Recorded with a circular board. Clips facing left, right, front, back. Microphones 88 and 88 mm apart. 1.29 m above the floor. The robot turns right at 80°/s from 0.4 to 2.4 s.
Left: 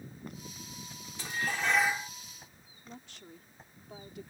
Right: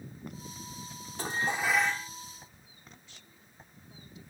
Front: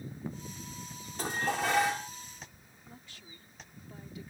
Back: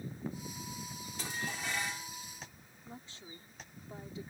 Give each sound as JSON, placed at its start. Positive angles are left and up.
{"t": 1.2, "sound": "dishes clattering", "azimuth_deg": -45}
{"t": 2.9, "sound": "a woman speaking", "azimuth_deg": 115}